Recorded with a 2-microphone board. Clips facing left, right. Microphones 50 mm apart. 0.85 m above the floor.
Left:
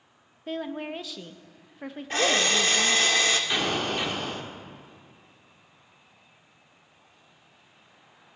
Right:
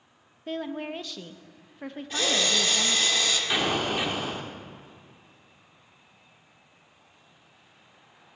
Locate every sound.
0.5 s a woman speaking: centre (ahead or behind), 0.7 m
2.1 s a drill: 45° left (ahead or behind), 1.4 m
3.5 s an explosion: 10° right (ahead or behind), 1.5 m